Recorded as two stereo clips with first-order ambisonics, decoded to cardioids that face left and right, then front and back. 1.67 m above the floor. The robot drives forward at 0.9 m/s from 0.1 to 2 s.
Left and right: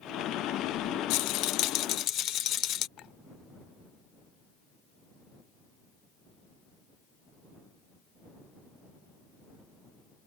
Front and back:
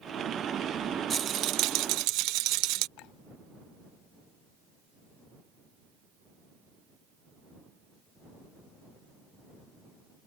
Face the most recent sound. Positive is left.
turn(degrees=35)